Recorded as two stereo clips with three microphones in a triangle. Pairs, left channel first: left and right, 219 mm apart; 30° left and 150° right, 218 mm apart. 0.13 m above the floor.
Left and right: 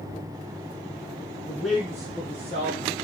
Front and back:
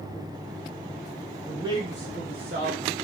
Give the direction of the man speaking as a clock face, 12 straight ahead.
7 o'clock.